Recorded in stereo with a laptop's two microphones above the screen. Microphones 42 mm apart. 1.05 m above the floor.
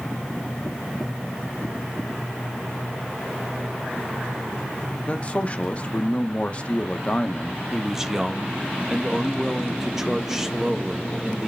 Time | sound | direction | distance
5.1 | a man speaking | 30° left (ahead or behind) | 0.5 m
7.7 | a man speaking | 10° right (ahead or behind) | 0.7 m